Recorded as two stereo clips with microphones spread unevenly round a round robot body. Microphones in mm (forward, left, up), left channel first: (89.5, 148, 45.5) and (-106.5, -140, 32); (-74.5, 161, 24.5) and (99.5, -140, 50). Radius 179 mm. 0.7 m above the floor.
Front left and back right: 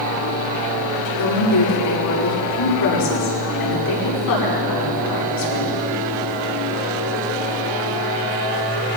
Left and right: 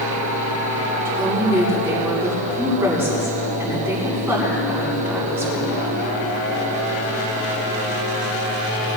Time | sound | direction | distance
1.1 | a woman speaking | 25° left | 6.5 m